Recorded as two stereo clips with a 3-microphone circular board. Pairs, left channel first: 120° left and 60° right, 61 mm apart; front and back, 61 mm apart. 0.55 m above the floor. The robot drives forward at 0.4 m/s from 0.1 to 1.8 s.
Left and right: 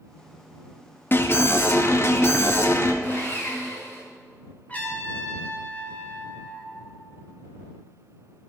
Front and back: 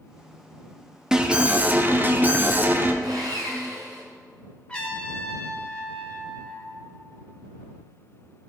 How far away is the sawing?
About 2.5 m.